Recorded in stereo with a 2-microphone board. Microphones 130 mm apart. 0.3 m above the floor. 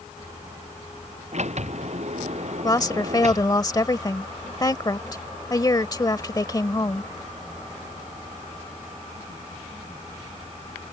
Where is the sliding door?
55° right (ahead or behind).